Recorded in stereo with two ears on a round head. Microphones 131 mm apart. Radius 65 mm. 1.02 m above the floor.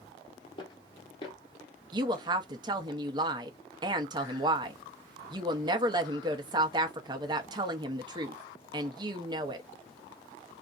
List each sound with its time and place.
0.6 s footsteps: 35° left (ahead or behind), 1.3 m
1.9 s a woman speaking: 30° right (ahead or behind), 0.7 m